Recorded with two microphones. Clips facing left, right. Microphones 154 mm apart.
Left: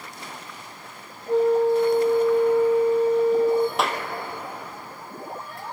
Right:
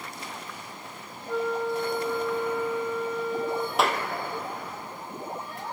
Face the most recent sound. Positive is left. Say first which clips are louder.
# even
turn(degrees=0)  # may be behind; listen again after turning